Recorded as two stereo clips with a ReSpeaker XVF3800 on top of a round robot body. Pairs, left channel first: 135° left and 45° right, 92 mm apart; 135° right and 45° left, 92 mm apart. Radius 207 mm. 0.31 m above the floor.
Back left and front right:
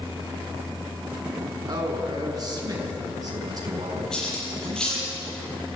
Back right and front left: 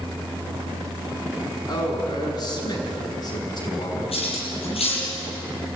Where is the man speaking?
90° right, 5.5 m.